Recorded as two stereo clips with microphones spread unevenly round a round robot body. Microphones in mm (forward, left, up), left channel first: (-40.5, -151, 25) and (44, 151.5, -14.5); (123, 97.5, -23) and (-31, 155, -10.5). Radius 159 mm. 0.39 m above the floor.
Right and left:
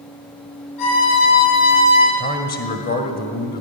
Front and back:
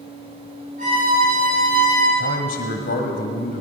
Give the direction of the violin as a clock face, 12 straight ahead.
4 o'clock.